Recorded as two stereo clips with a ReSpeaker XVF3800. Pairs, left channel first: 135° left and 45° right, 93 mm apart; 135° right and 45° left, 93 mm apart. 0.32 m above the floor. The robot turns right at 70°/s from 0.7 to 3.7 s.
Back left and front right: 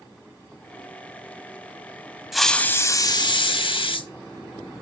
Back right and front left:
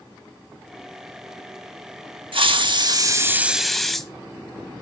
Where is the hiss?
40° left, 0.6 m; by 4.1 s 140° left, 0.6 m.